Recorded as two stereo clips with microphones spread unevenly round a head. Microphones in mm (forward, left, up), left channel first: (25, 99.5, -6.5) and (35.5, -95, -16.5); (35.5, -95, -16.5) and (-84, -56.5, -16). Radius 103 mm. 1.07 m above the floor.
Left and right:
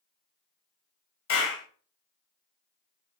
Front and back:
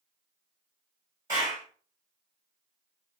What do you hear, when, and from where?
1.3 s a clap: 85° left, 4 m